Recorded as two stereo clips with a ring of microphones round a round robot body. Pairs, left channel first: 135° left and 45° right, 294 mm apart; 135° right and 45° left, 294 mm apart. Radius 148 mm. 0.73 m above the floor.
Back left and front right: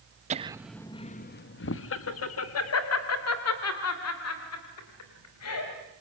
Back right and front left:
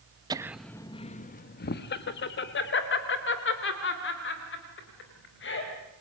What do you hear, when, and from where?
0.3 s laughter: 15° right, 0.7 m; by 5.7 s 175° left, 4.5 m